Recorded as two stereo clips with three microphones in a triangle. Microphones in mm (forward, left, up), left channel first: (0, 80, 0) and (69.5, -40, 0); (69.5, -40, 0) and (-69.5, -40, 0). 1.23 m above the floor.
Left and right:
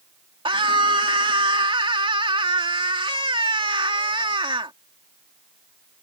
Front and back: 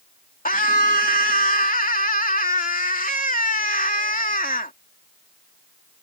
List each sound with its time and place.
0.5 s a scream: 5° right